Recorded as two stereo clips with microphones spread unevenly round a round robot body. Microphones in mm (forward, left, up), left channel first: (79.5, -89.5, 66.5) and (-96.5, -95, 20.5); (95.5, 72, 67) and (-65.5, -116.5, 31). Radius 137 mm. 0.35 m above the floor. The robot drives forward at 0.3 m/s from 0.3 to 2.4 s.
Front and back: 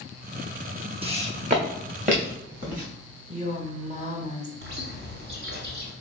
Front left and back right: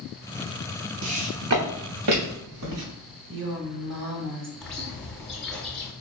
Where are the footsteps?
115° right, 1.0 m; by 2.8 s 130° right, 4 m.